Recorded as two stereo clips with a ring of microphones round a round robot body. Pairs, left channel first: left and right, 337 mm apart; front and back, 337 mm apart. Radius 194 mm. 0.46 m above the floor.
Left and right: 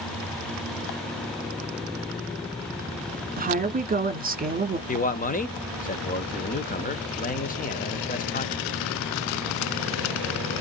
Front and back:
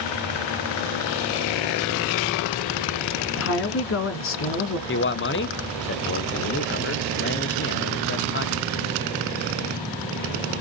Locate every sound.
3.4 s a woman speaking: 35° right, 1.4 m
4.9 s a man speaking: 35° left, 0.9 m